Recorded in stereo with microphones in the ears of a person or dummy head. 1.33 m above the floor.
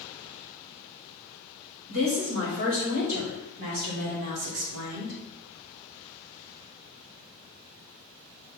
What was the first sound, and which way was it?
A woman speaking, 45° right (ahead or behind).